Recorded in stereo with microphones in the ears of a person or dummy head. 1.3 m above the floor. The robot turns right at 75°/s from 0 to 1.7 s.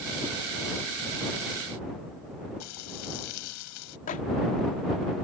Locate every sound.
2.6 s frying: 90° left
4.1 s a microwave: 40° left (ahead or behind)